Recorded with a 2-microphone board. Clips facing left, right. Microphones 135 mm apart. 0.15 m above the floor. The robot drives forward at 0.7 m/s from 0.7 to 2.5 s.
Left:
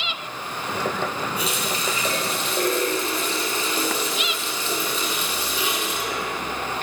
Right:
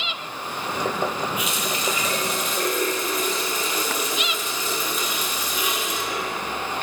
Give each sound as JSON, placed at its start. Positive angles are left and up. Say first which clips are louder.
{"t": 1.4, "sound": "a running tap", "louder": "even", "side_deg": 35, "distance_m": 3.0}